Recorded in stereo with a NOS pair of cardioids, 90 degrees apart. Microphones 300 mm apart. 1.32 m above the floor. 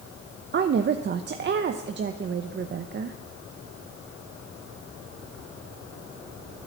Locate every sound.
0.5 s a woman speaking: 40° right, 0.7 m